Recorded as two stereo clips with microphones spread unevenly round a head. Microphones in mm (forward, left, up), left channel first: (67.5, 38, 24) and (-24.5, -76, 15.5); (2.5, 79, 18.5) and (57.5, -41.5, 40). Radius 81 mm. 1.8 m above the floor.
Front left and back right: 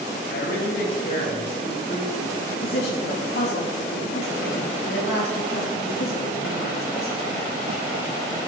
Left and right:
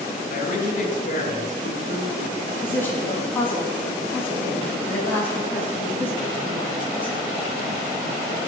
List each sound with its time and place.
0.3 s a man speaking: 85° left, 3 m
2.5 s a woman speaking: 35° left, 4 m